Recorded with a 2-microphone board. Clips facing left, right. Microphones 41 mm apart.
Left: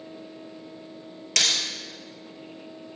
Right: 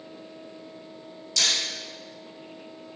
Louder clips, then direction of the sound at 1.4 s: Left 1 dB; 70° left (ahead or behind).